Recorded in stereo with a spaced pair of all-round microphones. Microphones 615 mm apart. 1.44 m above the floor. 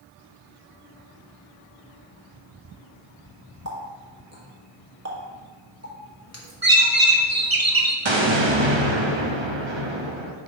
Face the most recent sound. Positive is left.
turn(degrees=-50)  # may be behind; listen again after turning